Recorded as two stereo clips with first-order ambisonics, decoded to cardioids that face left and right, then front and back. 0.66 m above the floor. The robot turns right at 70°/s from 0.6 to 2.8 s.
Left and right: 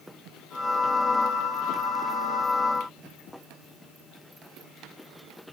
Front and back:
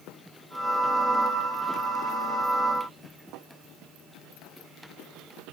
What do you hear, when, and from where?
Only background noise.